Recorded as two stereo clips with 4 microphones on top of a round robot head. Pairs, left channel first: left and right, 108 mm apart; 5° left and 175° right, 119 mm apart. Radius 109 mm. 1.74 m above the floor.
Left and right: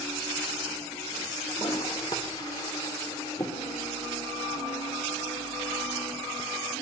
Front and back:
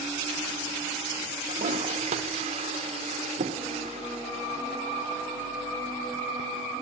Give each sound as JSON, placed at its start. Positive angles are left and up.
{"t": 1.5, "sound": "a toilet flushing", "azimuth_deg": 155, "distance_m": 1.3}